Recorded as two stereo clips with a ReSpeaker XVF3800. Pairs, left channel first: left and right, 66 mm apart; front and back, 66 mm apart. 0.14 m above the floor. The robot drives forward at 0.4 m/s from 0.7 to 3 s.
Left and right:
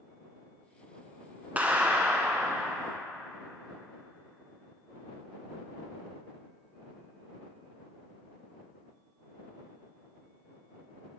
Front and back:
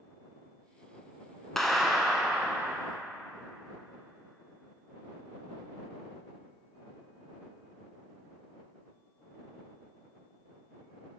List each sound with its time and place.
1.6 s a clap: 80° right, 0.9 m; by 2.8 s 135° right, 1.0 m